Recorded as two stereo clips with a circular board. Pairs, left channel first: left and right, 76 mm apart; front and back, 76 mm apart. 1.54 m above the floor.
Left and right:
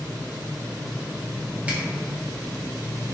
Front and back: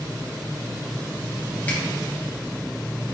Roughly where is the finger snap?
Ahead right.